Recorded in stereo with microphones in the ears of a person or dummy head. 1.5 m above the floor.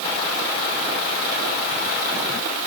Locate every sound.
Only background noise.